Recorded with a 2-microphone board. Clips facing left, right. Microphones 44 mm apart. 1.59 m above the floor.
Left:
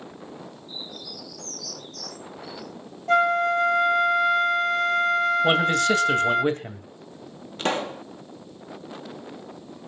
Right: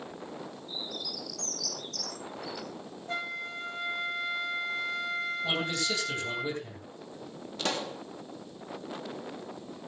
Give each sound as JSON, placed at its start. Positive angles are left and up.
{"t": 0.7, "sound": "a bird", "side_deg": -85, "distance_m": 5.5}
{"t": 3.1, "sound": "a flute", "side_deg": 70, "distance_m": 1.0}
{"t": 5.4, "sound": "a man speaking", "side_deg": 60, "distance_m": 2.5}
{"t": 7.6, "sound": "a pop", "side_deg": 35, "distance_m": 1.1}